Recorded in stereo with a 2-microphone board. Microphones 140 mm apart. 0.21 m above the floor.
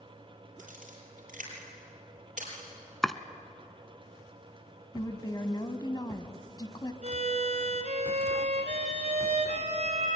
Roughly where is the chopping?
Centre.